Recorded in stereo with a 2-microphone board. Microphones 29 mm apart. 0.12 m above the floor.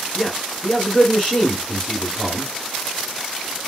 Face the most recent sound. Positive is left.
turn(degrees=25)  # may be behind; listen again after turning